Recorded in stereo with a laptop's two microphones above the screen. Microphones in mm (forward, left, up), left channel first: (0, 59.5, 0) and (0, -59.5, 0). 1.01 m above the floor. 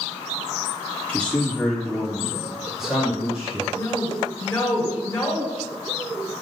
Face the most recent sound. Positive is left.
turn(degrees=15)  # may be behind; listen again after turning